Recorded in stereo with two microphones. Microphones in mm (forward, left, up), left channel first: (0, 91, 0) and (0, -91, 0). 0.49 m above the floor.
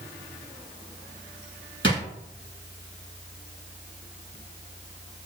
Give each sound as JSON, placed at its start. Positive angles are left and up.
{"t": 1.8, "sound": "a drawer", "side_deg": -85, "distance_m": 1.3}